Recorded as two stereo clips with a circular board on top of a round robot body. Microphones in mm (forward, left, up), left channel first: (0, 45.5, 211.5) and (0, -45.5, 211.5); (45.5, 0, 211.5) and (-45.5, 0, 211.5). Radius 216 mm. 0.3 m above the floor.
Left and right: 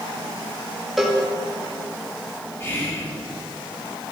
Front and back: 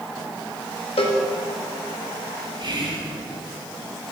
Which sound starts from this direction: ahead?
A cowbell, at 1.0 s.